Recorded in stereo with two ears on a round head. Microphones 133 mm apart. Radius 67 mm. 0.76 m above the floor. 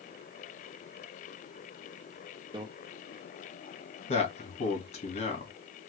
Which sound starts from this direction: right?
A microwave, at 2.5 s.